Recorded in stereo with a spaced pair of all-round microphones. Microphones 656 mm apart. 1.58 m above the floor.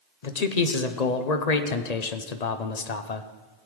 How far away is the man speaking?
About 0.9 m.